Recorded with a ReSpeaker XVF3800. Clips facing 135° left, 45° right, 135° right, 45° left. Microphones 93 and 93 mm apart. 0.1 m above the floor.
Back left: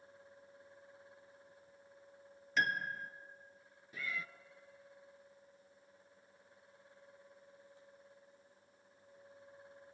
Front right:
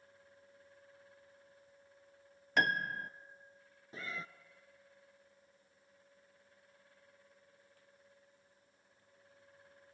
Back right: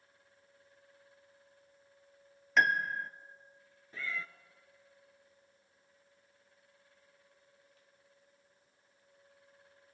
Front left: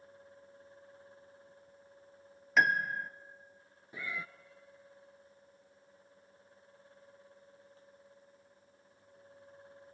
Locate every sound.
2.6 s a piano: 45° right, 0.5 m
3.9 s a cat meowing: 15° right, 0.6 m